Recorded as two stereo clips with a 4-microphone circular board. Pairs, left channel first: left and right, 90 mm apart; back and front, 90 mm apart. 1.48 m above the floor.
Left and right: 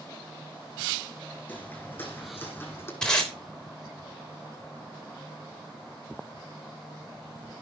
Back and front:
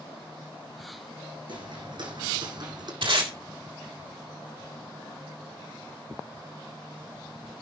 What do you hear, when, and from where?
1.5 s footsteps: 20° left, 4 m; by 2.9 s 25° left, 3.5 m
3.0 s tape being pulled: 10° left, 3 m